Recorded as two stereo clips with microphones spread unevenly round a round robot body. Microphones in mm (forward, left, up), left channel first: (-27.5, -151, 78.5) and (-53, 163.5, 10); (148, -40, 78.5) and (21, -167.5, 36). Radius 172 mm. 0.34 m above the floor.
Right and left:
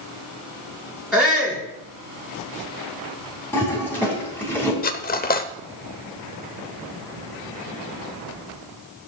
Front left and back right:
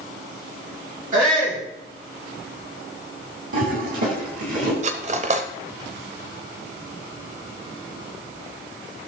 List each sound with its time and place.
1.1 s a shout: straight behind, 3.5 m
3.5 s a toilet flushing: 175° right, 3 m
4.8 s cutlery clinking: 155° right, 0.8 m